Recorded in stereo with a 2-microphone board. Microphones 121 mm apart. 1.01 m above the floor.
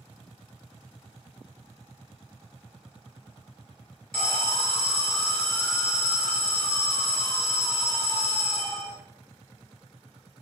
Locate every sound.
4.1 s an alarm: 5° left (ahead or behind), 0.8 m